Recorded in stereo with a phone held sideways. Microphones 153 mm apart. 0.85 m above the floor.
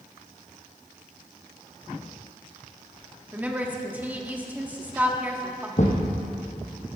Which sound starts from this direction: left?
A thud, at 5.8 s.